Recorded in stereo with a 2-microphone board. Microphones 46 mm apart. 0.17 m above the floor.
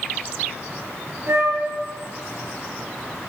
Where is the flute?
65° right (ahead or behind), 2.5 m.